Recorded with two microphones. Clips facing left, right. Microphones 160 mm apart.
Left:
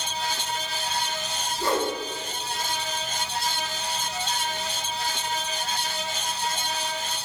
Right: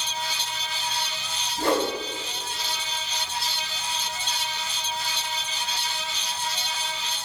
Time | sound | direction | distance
1.6 | a whoosh | 75° right (ahead or behind) | 5 m